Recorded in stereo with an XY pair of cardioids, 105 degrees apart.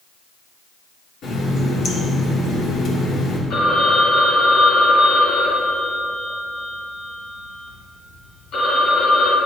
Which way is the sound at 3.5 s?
70° left.